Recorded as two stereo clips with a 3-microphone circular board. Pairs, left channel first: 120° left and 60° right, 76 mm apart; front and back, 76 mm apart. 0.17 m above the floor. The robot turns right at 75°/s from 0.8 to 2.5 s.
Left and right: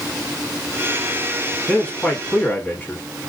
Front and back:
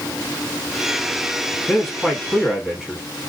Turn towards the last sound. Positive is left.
turn(degrees=120)